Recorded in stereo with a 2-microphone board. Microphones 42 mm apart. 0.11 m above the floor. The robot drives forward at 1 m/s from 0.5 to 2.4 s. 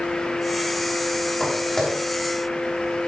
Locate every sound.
1.4 s footsteps: 10° left (ahead or behind), 6 m